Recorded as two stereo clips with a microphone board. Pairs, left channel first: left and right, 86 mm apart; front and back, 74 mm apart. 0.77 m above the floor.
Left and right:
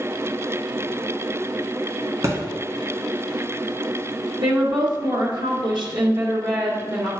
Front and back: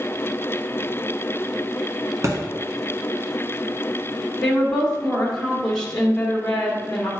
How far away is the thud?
About 1.3 m.